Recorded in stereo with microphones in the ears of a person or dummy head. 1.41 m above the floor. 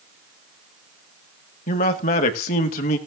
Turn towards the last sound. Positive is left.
turn(degrees=40)  # may be behind; listen again after turning